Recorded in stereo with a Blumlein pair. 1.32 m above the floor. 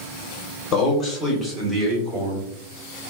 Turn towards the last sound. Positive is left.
turn(degrees=-30)